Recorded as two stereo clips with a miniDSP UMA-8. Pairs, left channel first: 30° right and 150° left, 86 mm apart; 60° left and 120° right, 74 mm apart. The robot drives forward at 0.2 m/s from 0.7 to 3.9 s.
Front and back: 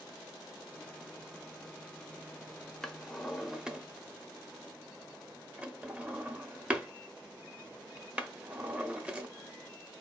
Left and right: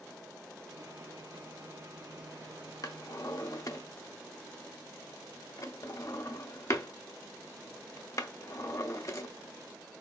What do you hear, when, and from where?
2.8 s a drawer: 55° left, 0.6 m; by 9.3 s 85° left, 0.5 m